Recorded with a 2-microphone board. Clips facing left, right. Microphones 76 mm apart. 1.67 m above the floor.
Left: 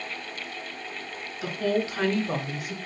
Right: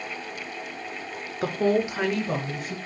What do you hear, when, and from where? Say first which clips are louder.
1.4 s a woman speaking: right 4 dB; 45° right (ahead or behind), 0.6 m; by 2.8 s 15° left (ahead or behind), 1.1 m